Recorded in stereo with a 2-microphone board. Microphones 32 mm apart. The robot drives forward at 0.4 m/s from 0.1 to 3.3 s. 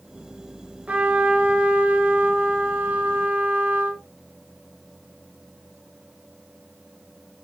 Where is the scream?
No scream in this recording.